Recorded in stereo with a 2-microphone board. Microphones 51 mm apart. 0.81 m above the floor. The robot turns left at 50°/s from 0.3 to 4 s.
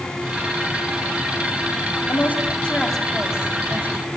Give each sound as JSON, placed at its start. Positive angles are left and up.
{"t": 2.1, "sound": "a woman speaking", "side_deg": 55, "distance_m": 4.5}